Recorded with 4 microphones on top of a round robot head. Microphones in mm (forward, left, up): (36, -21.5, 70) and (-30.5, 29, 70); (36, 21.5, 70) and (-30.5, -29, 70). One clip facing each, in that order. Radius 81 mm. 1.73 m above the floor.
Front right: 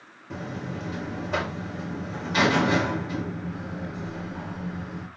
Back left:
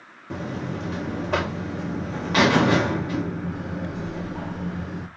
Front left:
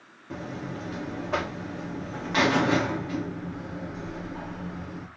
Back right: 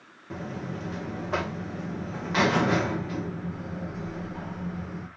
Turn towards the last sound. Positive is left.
turn(degrees=130)